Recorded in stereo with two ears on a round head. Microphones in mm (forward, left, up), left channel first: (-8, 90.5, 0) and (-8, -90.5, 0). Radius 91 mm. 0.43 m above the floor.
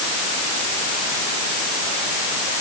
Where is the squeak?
I don't hear a squeak.